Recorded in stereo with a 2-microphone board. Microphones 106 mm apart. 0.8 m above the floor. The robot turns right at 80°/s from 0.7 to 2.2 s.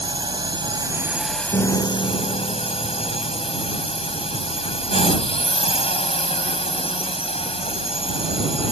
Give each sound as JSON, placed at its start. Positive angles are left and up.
{"t": 0.0, "sound": "a drone", "azimuth_deg": -50}
{"t": 1.5, "sound": "a piano", "azimuth_deg": 65}